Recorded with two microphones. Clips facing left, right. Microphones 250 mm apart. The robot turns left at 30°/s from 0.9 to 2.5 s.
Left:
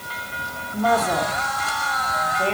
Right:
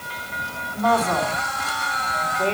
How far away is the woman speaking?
About 2 m.